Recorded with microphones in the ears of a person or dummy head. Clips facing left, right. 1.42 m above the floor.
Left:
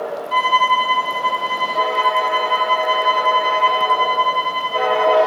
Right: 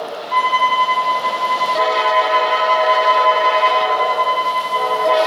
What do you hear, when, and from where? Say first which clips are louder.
0.3 s a violin: right 1 dB; 5° left (ahead or behind), 3 m